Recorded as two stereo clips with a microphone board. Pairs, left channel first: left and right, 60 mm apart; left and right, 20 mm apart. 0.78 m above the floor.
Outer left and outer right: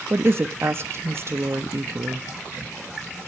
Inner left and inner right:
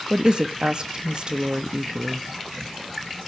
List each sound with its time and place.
0.1 s a woman speaking: 40° right (ahead or behind), 1.2 m